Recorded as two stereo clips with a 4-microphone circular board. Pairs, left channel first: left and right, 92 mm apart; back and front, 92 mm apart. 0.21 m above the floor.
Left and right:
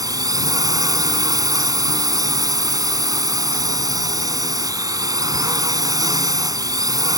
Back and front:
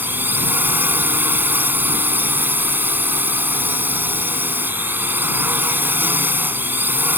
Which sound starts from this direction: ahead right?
A drone, at 0.0 s.